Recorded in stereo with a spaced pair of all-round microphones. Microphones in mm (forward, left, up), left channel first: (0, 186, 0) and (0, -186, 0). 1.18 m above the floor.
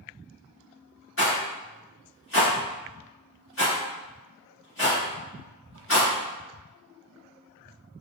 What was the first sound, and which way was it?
A rattle, 40° left (ahead or behind).